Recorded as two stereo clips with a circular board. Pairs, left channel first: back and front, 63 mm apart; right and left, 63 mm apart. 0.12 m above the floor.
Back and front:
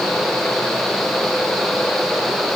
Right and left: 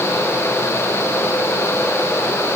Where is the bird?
No bird in this recording.